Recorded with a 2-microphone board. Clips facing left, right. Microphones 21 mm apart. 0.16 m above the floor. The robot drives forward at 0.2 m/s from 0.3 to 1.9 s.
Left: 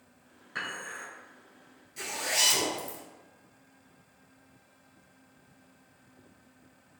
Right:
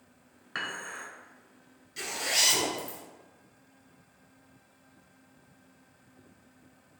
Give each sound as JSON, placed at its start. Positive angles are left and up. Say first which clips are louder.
{"t": 0.6, "sound": "dishes clattering", "louder": "right 1 dB", "side_deg": -35, "distance_m": 1.3}
{"t": 2.0, "sound": "a zipper", "louder": "right 1 dB", "side_deg": -40, "distance_m": 1.0}